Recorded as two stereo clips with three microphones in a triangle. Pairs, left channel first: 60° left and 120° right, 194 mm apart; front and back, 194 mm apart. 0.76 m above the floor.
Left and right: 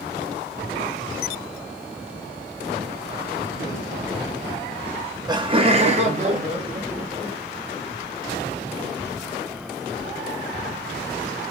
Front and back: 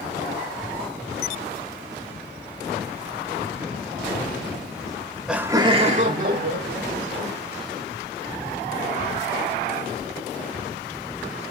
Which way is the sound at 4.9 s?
40° right.